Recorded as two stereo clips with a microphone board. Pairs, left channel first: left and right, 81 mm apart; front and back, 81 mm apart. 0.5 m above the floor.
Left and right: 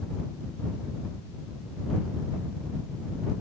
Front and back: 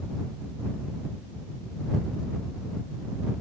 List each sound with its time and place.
Only background noise.